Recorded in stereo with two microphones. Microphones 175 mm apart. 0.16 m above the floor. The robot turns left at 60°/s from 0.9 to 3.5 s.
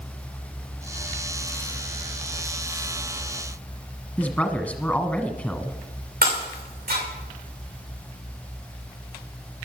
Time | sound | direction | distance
4.2 | a woman speaking | 10° left (ahead or behind) | 1.2 m
6.2 | breaking glass | 60° right (ahead or behind) | 6.5 m